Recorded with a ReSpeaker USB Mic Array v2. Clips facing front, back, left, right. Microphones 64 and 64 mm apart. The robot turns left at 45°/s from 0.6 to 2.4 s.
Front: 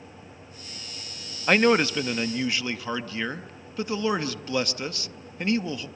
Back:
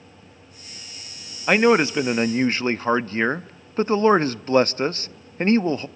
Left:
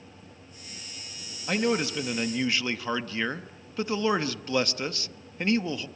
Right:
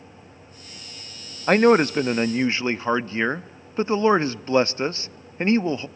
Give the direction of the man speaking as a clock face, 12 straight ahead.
3 o'clock.